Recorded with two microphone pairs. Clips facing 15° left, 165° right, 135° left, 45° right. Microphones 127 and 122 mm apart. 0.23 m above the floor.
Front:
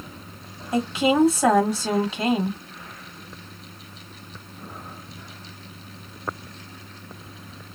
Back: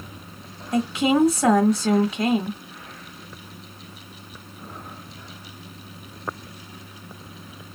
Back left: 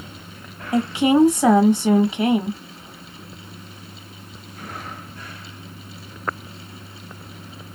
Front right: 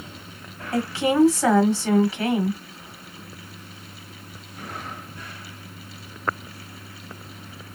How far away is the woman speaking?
About 1.1 m.